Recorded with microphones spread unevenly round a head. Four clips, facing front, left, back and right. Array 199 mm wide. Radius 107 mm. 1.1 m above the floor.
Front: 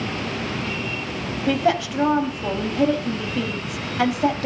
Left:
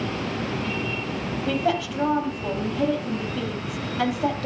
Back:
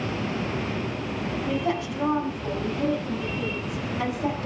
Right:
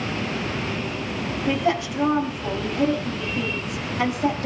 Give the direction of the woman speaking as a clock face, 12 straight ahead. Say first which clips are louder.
Right 1 dB, front 8 dB; 12 o'clock.